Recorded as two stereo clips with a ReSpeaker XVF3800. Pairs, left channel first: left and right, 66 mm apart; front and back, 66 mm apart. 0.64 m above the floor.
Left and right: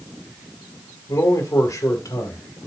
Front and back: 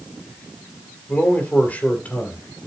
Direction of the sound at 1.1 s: 65° left.